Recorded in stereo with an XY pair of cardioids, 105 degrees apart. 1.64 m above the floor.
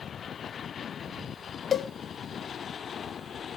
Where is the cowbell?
45° left, 0.6 m.